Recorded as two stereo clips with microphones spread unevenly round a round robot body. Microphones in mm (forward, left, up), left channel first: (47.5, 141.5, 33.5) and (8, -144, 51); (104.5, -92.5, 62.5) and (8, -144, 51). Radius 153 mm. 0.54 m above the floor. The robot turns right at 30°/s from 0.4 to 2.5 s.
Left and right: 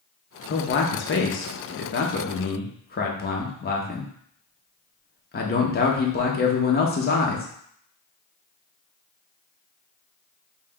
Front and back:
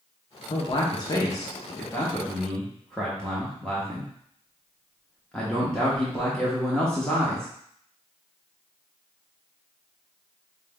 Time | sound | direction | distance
0.5 | a man speaking | 55° left | 0.8 m